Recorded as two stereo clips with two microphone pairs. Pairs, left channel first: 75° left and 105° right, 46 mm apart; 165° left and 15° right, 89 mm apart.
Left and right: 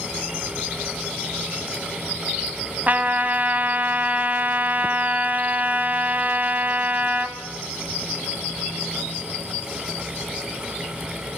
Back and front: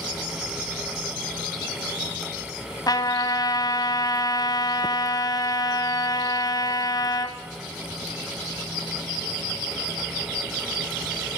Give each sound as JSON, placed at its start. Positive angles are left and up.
{"t": 2.9, "sound": "a trumpet", "azimuth_deg": -155, "distance_m": 1.3}